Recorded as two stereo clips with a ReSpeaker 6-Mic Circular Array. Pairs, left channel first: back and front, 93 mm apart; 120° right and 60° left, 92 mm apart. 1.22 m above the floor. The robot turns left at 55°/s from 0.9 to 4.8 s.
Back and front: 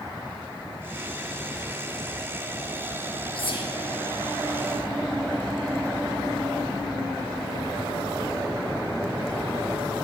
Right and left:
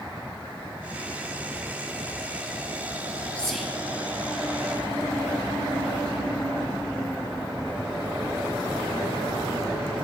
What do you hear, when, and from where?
3.4 s whispering: 165° left, 1.7 m; by 3.7 s 140° left, 1.7 m